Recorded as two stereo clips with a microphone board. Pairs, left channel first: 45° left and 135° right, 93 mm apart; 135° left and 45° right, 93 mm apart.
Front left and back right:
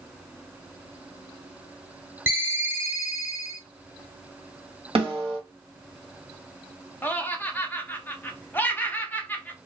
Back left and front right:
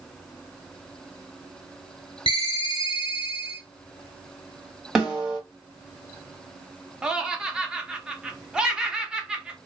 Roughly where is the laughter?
Ahead.